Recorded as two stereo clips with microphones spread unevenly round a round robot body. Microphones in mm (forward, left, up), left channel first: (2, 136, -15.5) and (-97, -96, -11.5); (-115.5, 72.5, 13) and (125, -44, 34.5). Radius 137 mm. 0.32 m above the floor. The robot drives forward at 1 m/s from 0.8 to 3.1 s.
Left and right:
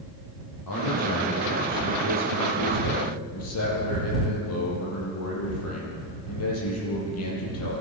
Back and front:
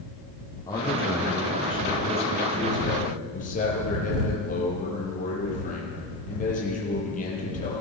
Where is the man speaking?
75° left, 9 m; by 7.8 s 90° left, 8.5 m.